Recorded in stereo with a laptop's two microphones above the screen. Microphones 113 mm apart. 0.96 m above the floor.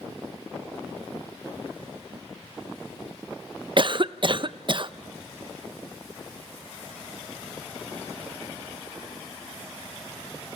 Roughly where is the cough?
Right.